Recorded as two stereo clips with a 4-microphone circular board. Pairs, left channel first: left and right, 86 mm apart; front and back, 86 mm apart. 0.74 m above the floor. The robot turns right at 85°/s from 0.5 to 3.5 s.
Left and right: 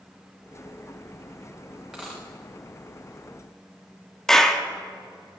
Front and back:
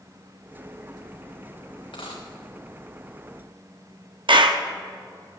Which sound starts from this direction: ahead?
A dropped coin, at 1.9 s.